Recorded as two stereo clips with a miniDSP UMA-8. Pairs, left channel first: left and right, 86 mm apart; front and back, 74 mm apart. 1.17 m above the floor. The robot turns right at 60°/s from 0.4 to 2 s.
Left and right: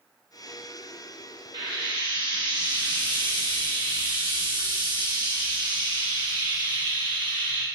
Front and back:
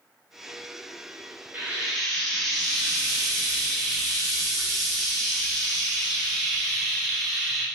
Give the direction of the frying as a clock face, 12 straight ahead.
4 o'clock.